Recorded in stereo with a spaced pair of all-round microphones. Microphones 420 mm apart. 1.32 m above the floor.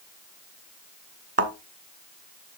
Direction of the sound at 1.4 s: 30° right (ahead or behind).